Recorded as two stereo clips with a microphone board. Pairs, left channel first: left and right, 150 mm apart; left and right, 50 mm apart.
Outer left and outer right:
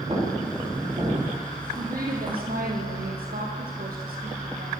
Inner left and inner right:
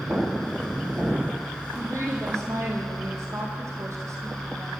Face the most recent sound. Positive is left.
turn(degrees=-75)  # may be behind; listen again after turning